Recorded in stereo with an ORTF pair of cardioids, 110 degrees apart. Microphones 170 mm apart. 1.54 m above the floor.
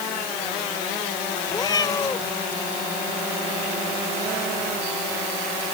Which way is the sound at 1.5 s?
25° left.